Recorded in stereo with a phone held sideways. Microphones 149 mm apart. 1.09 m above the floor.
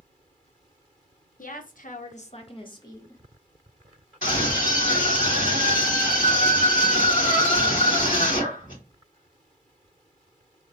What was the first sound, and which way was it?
A woman speaking, 65° left (ahead or behind).